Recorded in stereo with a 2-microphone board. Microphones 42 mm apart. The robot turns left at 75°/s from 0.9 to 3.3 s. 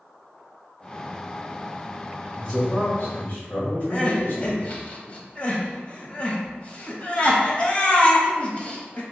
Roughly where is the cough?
I don't hear a cough.